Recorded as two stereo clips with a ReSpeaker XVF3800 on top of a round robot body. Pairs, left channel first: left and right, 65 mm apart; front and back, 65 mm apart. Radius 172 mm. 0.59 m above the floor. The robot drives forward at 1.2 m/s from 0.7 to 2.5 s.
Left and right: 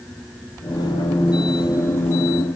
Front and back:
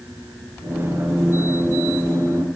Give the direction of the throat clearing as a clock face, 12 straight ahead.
I don't hear throat clearing.